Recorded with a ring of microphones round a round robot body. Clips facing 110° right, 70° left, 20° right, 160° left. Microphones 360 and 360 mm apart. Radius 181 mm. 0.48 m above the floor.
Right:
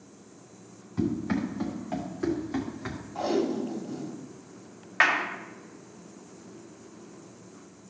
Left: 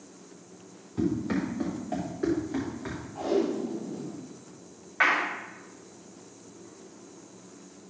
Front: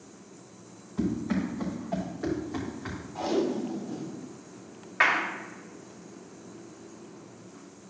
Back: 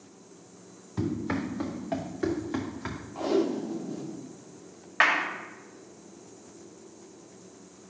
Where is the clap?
140° right, 2 m.